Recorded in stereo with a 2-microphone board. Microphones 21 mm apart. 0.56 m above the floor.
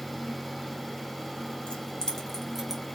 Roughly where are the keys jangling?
Left.